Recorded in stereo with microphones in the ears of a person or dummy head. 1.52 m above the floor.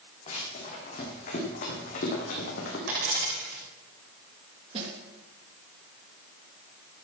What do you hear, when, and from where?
0.3 s running footsteps: 35° left (ahead or behind), 6 m; by 2.8 s 55° left (ahead or behind), 4 m
2.9 s a dropped coin: 65° right (ahead or behind), 8.5 m
4.7 s a snare drum: 35° right (ahead or behind), 3.5 m